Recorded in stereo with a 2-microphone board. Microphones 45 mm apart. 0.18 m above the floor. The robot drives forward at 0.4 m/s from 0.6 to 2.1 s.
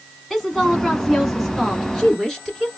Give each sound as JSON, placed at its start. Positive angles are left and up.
{"t": 0.3, "sound": "a woman speaking", "side_deg": 5, "distance_m": 1.3}